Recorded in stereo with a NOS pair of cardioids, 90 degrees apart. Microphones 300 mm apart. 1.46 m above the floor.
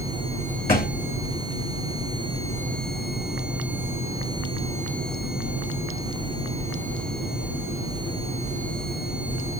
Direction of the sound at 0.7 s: 30° left.